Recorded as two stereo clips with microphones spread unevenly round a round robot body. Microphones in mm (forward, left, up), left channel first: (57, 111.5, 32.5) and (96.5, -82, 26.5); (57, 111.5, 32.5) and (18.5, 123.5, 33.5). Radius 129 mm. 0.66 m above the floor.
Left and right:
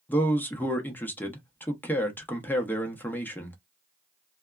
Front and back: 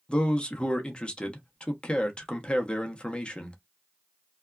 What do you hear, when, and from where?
0.1 s a man speaking: 25° left, 0.9 m